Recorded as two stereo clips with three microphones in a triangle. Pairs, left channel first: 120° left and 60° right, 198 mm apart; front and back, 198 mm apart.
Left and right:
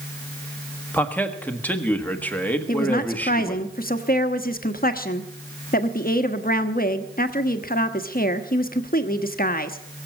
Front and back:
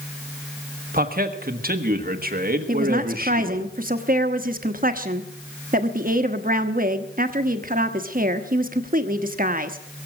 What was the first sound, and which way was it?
A man speaking, 160° right.